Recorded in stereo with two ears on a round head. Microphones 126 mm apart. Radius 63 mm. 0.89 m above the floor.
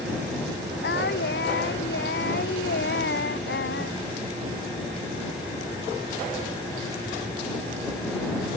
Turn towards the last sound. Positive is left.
turn(degrees=80)